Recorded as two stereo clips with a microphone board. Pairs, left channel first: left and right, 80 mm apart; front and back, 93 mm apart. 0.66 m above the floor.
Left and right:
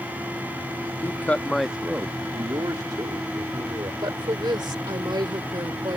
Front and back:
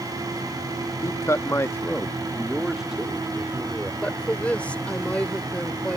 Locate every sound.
1.0 s a man speaking: 45° left; by 3.9 s 105° right
4.0 s a woman speaking: 75° right